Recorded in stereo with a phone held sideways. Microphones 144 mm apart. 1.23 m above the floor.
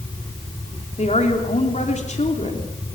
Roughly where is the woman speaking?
Left.